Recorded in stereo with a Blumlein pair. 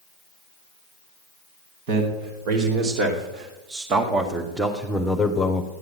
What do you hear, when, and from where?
1.9 s a man speaking: 50° right, 2.5 m; by 5.7 s 20° left, 1.3 m